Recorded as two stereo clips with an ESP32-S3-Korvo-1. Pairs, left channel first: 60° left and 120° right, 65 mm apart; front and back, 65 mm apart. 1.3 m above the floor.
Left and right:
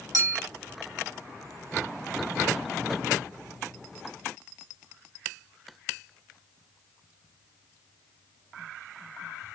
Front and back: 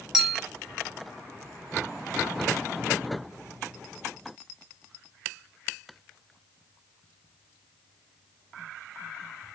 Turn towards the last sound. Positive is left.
turn(degrees=-95)